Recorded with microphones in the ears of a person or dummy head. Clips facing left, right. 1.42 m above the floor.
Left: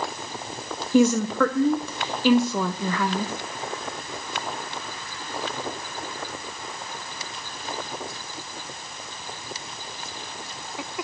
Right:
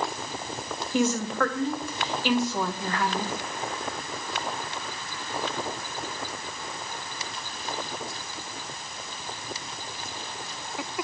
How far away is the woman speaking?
About 0.6 m.